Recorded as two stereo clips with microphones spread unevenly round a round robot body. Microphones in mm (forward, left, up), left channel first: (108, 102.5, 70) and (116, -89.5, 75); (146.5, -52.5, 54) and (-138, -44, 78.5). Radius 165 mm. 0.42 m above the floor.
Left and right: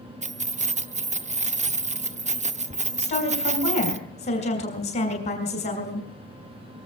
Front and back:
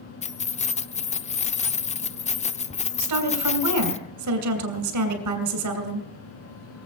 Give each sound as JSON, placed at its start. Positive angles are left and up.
{"t": 0.2, "sound": "keys jangling", "azimuth_deg": -50, "distance_m": 0.7}
{"t": 3.0, "sound": "a woman speaking", "azimuth_deg": 150, "distance_m": 3.0}